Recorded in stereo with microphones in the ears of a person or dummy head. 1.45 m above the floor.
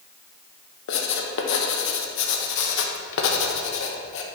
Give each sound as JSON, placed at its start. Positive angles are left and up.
{"t": 0.9, "sound": "writing", "side_deg": 65, "distance_m": 1.1}